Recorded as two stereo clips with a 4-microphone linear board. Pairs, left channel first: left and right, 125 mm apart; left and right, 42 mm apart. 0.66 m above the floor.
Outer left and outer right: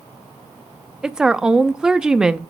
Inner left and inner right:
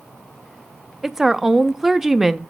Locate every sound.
1.0 s a woman speaking: 5° right (ahead or behind), 0.6 m